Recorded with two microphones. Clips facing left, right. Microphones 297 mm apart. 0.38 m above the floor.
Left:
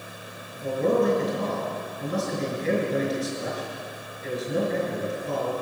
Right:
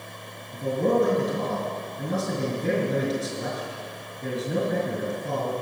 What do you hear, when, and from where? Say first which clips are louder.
0.5 s a man speaking: right 1 dB; 60° right (ahead or behind), 5.5 m